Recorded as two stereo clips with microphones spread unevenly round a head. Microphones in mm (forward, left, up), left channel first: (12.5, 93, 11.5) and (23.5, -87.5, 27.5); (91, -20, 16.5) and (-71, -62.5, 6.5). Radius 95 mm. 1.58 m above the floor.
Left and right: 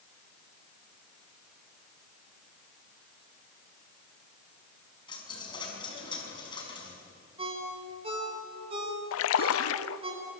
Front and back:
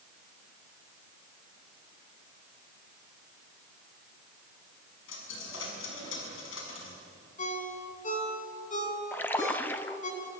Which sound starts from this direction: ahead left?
A dropped coin, at 5.1 s.